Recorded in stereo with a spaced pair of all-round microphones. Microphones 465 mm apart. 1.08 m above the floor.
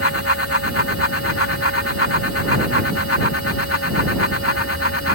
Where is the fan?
30° left (ahead or behind).